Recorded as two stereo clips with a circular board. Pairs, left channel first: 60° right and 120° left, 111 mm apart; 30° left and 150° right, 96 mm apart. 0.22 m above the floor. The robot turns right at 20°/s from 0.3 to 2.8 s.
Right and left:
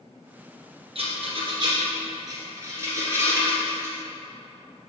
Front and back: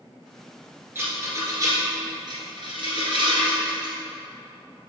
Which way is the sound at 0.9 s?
145° left.